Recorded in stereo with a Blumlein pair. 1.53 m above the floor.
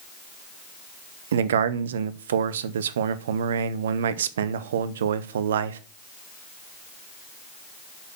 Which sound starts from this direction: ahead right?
A man speaking, at 1.3 s.